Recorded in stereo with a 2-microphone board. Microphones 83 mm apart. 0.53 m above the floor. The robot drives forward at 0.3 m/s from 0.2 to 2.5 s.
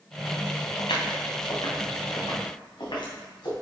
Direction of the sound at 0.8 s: 75° left (ahead or behind).